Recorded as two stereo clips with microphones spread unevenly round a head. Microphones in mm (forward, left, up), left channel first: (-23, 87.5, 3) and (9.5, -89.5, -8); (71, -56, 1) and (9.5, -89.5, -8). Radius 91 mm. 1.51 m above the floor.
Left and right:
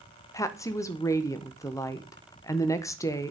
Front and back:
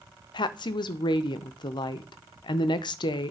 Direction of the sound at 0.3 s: 25° left.